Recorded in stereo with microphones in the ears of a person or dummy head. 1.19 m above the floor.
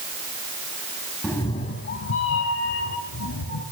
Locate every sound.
1.2 s a cat meowing: centre (ahead or behind), 1.1 m; by 3.6 s 70° left (ahead or behind), 3 m